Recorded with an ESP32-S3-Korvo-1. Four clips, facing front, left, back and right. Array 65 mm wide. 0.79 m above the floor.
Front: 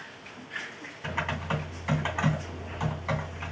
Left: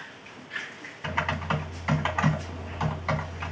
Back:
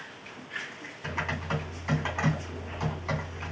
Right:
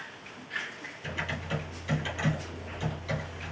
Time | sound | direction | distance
1.0 | typing on a keyboard | 75° left | 3 m